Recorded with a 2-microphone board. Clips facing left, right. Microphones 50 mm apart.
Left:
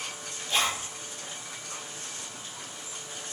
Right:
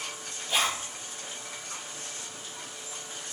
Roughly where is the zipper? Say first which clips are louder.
Even; centre.